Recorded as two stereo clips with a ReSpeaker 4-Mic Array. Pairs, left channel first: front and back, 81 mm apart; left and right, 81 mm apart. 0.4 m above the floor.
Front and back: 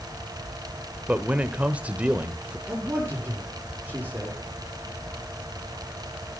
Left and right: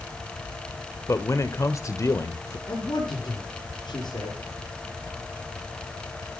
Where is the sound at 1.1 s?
115° left, 1.2 m.